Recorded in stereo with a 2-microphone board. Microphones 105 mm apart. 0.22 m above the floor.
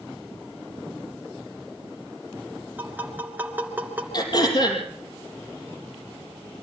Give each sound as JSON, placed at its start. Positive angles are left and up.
{"t": 2.8, "sound": "tapping", "side_deg": -15, "distance_m": 3.0}
{"t": 4.1, "sound": "throat clearing", "side_deg": 45, "distance_m": 4.5}